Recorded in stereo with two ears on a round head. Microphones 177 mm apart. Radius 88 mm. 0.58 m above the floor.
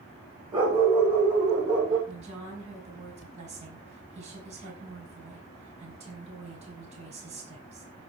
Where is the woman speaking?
35° right (ahead or behind), 5 m.